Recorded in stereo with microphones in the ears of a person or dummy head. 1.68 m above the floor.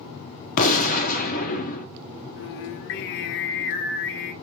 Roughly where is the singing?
Left.